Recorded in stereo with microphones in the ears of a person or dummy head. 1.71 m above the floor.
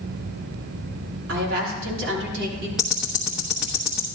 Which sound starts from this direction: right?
A woman speaking, at 1.3 s.